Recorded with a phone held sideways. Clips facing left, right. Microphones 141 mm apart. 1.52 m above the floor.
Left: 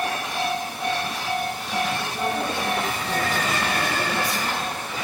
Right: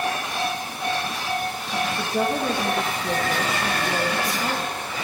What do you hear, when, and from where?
2.0 s a woman speaking: 60° right (ahead or behind), 2.0 m